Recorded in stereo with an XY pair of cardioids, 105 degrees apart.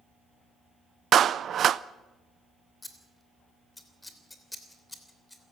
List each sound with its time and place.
1.1 s a clap: 55° right, 0.5 m
2.8 s scissors: 15° left, 3 m